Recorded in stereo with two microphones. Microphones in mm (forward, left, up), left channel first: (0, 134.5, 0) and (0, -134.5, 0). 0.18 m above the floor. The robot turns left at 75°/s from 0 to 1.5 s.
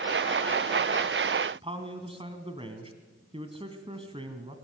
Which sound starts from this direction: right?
A man speaking, at 1.6 s.